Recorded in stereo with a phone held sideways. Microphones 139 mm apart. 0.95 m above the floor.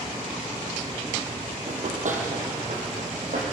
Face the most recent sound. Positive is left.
turn(degrees=-70)  # may be behind; listen again after turning